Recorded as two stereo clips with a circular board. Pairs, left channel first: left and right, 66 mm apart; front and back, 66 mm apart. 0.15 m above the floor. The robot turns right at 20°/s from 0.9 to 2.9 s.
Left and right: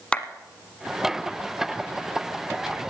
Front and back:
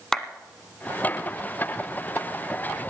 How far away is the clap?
About 1.0 m.